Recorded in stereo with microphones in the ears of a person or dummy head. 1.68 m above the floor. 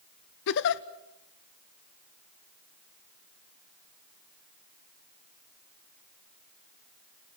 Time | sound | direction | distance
0.5 | a giggle | 60° left (ahead or behind) | 0.9 m